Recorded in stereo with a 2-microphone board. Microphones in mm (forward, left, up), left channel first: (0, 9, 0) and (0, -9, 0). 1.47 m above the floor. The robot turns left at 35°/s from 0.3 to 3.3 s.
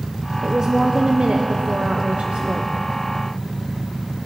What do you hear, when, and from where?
0.4 s a woman speaking: 35° right, 0.8 m; by 2.7 s 115° right, 0.8 m